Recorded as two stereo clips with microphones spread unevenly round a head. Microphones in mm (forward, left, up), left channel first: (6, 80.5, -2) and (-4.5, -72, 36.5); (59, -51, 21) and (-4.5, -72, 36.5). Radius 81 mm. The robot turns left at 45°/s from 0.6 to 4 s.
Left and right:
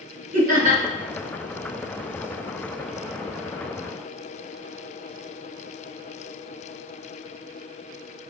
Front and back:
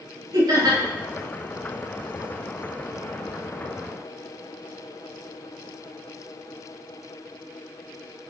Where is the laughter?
135° right, 2.5 m; by 0.8 s 145° right, 2.5 m.